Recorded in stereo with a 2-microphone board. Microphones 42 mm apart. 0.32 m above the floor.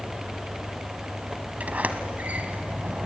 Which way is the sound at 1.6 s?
40° right (ahead or behind).